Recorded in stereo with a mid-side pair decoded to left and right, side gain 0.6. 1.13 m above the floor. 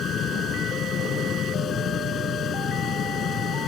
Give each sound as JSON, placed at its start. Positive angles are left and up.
{"t": 0.0, "sound": "a fan", "azimuth_deg": 45}